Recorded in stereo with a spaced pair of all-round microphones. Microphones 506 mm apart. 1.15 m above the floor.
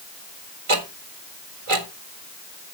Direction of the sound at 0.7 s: 80° right.